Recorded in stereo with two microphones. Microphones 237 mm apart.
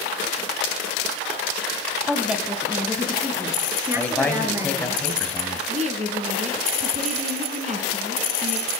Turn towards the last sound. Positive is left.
turn(degrees=-30)  # may be behind; listen again after turning